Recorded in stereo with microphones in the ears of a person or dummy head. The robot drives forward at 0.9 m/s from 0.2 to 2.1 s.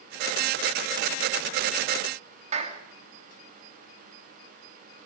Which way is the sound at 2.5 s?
30° right (ahead or behind).